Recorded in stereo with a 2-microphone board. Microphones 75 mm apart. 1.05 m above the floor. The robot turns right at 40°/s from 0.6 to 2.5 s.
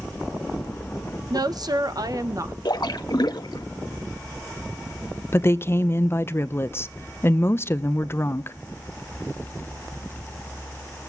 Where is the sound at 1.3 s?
100° right, 1.0 m; by 2.5 s 55° right, 1.0 m.